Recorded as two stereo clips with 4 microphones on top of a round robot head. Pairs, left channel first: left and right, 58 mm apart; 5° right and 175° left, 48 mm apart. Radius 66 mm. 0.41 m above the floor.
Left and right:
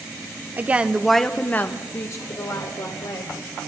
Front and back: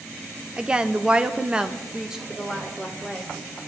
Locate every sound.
0.6 s a woman speaking: 125° right, 0.9 m; by 3.3 s 90° left, 1.8 m